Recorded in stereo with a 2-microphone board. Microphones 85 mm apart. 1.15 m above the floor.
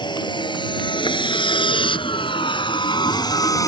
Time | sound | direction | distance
0.0 | a vehicle | 60° left (ahead or behind) | ?